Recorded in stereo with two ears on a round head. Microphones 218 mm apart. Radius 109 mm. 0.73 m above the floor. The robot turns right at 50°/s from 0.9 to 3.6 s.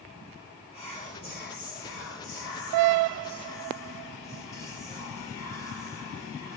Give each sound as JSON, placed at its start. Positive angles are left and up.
{"t": 0.7, "sound": "whispering", "azimuth_deg": 30, "distance_m": 0.6}